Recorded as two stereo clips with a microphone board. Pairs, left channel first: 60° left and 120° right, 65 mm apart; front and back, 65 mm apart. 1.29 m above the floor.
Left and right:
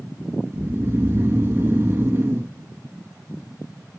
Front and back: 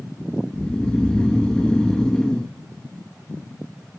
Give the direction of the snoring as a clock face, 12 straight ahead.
2 o'clock.